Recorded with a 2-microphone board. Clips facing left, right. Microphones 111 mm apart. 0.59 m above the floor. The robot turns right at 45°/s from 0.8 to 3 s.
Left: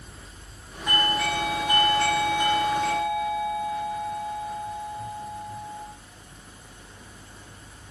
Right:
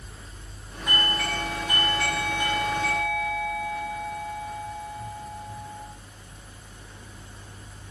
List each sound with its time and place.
0.9 s a doorbell: straight ahead, 1.3 m; by 5.9 s 95° left, 1.3 m